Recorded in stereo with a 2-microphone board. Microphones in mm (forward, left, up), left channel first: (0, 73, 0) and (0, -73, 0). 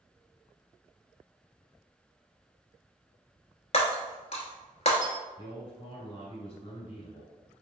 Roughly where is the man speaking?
Left.